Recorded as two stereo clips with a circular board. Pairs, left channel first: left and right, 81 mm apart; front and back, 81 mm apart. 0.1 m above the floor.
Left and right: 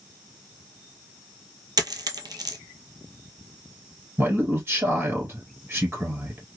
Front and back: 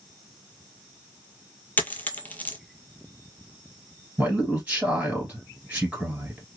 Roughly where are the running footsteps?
I don't hear running footsteps.